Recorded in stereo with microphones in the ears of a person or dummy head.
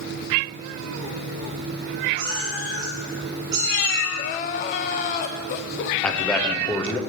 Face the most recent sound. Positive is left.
turn(degrees=5)  # may be behind; listen again after turning